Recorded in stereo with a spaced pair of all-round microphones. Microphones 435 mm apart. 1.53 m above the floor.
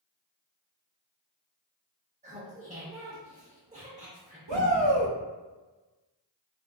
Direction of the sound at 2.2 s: 15° right (ahead or behind).